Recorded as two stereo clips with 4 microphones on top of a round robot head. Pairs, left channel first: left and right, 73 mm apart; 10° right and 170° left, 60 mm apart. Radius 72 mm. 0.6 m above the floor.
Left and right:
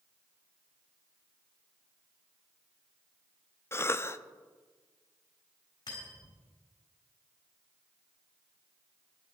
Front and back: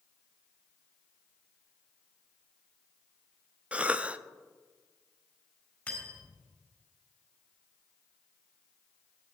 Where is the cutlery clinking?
60° left, 4.5 m.